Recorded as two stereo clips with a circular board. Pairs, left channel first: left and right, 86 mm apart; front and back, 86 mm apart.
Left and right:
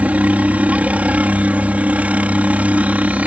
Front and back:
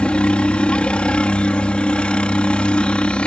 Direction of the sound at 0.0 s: 50° right.